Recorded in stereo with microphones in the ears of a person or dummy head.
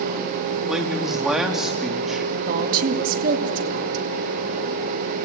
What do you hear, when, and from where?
0.7 s a man speaking: 5° right (ahead or behind), 3 m
2.5 s a woman speaking: 50° right (ahead or behind), 2.5 m